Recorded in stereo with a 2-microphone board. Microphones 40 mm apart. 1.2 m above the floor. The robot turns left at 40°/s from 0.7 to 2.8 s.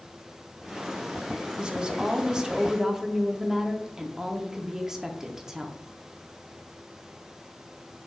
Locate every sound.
1.6 s a woman speaking: 20° right (ahead or behind), 0.6 m; by 5.8 s 10° right (ahead or behind), 0.6 m